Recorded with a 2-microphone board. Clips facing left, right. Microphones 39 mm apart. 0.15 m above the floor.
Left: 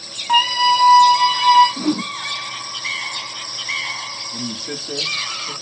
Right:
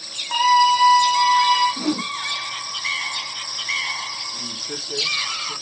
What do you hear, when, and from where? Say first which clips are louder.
0.3 s a scream: even; 80° left, 10 m
1.8 s a whoosh: left 3 dB; 5° left (ahead or behind), 0.7 m
4.3 s a man speaking: left 4 dB; 85° left, 8.5 m